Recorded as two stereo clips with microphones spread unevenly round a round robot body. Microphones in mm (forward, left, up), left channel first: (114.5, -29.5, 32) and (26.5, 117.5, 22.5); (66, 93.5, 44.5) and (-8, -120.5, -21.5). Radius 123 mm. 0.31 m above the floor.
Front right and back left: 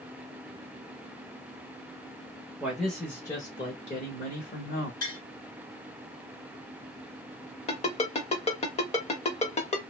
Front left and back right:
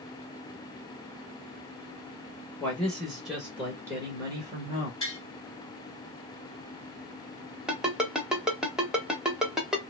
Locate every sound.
2.6 s a man speaking: 175° right, 1.0 m; by 4.9 s 65° right, 1.4 m
5.0 s tapping: 15° right, 1.7 m
7.7 s a ringtone: 50° right, 1.0 m